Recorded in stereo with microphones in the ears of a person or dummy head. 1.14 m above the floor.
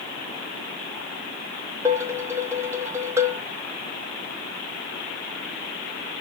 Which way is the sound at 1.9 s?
15° right (ahead or behind).